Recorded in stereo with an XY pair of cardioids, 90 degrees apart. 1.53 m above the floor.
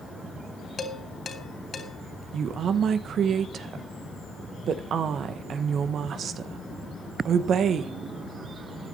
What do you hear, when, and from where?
0.8 s dishes clattering: 50° left, 3 m
2.3 s a woman speaking: 65° right, 1.4 m